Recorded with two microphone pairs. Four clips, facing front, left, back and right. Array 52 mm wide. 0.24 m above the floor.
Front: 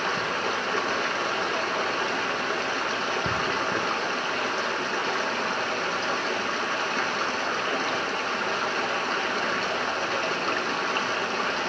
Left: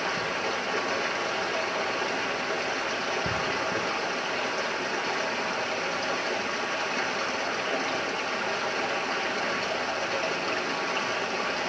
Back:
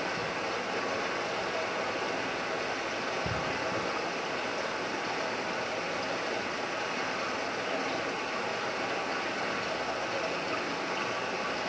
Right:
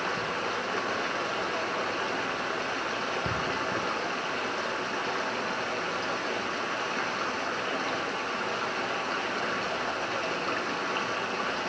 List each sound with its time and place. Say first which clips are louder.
0.0 s running water: left 1 dB, front 6 dB; 5° right, 2 m